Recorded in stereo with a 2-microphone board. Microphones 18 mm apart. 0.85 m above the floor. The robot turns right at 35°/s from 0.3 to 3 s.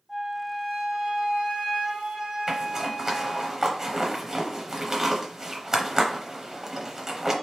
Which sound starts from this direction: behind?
A flute, at 0.1 s.